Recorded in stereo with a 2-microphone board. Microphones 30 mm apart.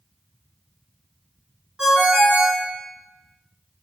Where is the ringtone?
25° right (ahead or behind), 1.6 m.